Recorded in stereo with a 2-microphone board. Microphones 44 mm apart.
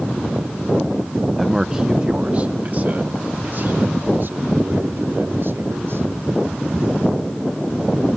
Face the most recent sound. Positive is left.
turn(degrees=-65)  # may be behind; listen again after turning